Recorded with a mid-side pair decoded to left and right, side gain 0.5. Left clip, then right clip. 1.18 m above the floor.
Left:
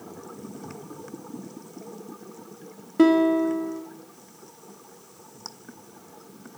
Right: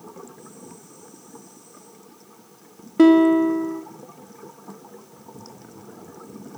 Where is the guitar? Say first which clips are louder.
Right 4 dB; 15° right, 1.0 m.